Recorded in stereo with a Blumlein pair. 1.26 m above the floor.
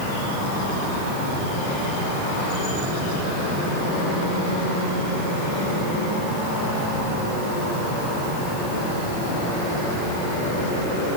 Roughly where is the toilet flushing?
I don't hear a toilet flushing.